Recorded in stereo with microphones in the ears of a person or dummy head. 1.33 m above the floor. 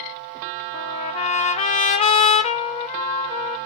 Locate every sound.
0.7 s a trumpet: 30° left (ahead or behind), 0.8 m